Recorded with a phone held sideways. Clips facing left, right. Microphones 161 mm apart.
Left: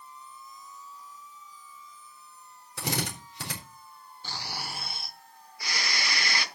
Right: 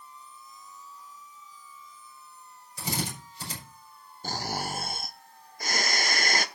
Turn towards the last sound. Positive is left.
turn(degrees=-45)  # may be behind; listen again after turning